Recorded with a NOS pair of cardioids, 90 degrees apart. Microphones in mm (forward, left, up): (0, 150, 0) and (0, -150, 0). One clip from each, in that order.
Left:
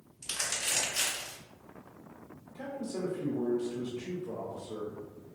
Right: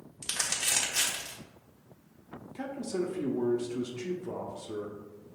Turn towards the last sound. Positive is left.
turn(degrees=-65)